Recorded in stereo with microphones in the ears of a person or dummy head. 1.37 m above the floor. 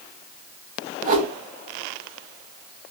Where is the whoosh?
45° right (ahead or behind), 0.6 m.